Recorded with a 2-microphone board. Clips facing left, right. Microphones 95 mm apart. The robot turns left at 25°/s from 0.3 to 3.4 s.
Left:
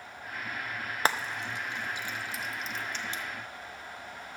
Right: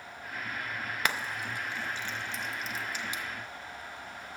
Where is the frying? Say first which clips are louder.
Left 4 dB; 30° left (ahead or behind), 0.5 m; by 3.2 s 15° right (ahead or behind), 0.5 m.